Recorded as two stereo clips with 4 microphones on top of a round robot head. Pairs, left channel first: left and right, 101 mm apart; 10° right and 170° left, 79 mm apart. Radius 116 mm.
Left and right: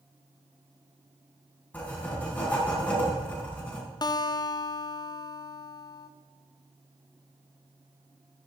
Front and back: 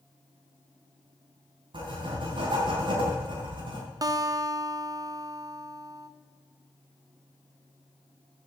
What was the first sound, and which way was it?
Writing, 165° left.